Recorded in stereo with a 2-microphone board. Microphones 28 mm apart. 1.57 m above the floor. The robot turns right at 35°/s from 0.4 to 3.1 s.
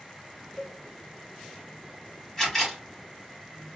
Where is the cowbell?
45° left (ahead or behind), 0.7 m; by 0.8 s 55° left (ahead or behind), 0.7 m.